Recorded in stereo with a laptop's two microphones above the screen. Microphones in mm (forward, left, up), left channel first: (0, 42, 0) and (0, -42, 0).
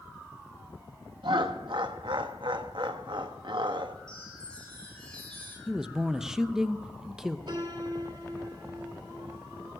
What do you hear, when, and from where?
1.2 s laughter: 70° right (ahead or behind), 1.1 m
4.1 s a chime: 10° left (ahead or behind), 5 m
5.7 s a man speaking: 5° right (ahead or behind), 0.7 m
7.5 s a piano: 60° right (ahead or behind), 2 m